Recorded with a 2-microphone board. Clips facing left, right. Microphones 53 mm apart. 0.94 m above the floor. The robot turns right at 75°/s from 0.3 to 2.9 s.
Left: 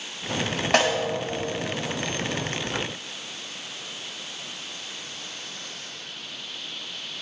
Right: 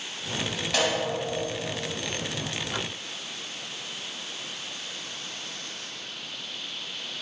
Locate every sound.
0.7 s a snare drum: 50° left (ahead or behind), 1.9 m; by 1.0 s 30° left (ahead or behind), 1.9 m